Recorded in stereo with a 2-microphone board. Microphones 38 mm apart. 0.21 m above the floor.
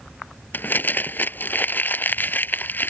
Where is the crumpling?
60° left (ahead or behind).